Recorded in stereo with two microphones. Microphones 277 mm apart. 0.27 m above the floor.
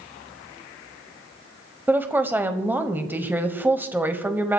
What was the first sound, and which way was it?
A woman speaking, 5° right (ahead or behind).